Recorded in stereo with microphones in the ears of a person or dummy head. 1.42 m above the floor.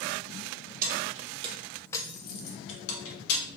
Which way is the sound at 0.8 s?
45° right (ahead or behind).